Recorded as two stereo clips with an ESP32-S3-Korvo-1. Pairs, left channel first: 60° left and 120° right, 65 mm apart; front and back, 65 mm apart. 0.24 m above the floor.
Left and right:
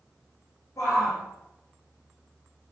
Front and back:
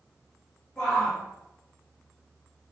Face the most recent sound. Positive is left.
turn(degrees=85)